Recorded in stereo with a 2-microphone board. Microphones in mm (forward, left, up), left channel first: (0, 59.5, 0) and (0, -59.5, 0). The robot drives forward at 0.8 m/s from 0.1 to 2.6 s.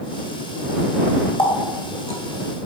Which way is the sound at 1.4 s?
45° left (ahead or behind).